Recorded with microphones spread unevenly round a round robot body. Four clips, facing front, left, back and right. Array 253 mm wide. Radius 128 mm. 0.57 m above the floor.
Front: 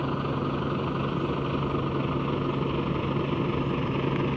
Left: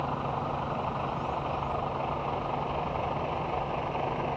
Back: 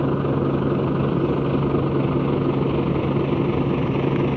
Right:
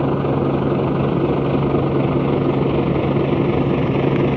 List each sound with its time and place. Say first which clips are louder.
0.0 s a vehicle: right 13 dB, back 8 dB; 125° right; by 4.4 s 115° right